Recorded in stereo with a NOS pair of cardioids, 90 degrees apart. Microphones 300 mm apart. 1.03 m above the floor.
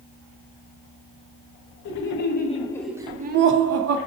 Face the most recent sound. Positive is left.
turn(degrees=-60)